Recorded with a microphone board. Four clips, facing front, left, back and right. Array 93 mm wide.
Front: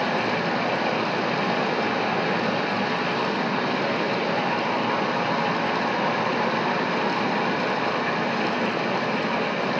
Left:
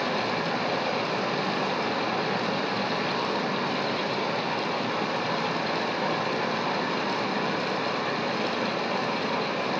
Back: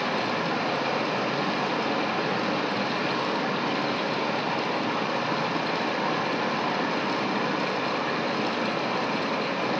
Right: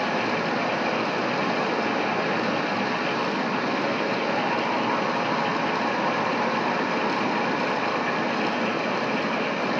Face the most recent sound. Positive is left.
turn(degrees=-20)